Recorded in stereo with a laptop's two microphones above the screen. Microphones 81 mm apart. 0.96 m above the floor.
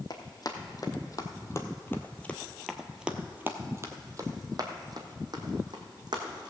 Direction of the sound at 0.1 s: 55° left (ahead or behind).